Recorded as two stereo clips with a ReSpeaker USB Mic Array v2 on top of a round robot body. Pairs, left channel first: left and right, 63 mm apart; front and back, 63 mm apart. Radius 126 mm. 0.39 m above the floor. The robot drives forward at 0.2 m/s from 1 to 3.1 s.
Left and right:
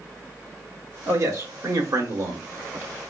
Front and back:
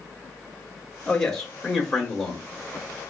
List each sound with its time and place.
1.1 s a man speaking: 75° right, 1.2 m; by 2.5 s 90° right, 1.1 m